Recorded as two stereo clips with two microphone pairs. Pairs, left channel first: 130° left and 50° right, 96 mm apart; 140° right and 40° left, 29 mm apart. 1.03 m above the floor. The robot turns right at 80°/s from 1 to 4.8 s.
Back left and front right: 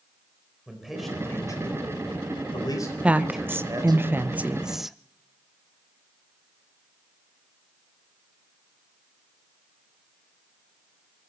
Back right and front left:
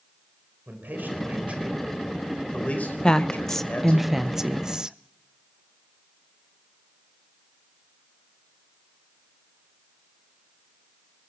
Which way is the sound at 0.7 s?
40° left.